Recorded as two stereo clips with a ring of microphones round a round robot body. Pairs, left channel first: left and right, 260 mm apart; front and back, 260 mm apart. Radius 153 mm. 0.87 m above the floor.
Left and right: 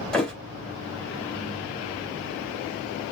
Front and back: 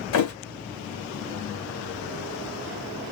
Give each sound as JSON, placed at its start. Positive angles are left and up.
{"t": 0.1, "sound": "a thud", "azimuth_deg": 5, "distance_m": 2.0}